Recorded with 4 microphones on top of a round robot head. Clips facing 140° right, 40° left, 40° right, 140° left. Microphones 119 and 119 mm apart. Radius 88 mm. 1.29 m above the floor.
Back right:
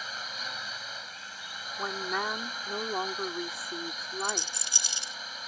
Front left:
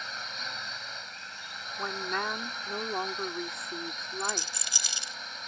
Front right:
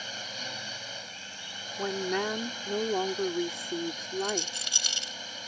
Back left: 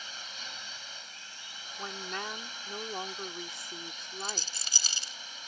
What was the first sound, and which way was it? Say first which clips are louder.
A drone: even, front right 6 dB; 50° right.